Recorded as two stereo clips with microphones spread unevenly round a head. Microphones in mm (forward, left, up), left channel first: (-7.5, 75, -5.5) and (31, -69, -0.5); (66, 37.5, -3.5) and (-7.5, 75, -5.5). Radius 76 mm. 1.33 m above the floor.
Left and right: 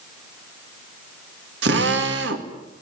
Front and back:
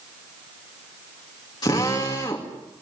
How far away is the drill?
About 2.5 m.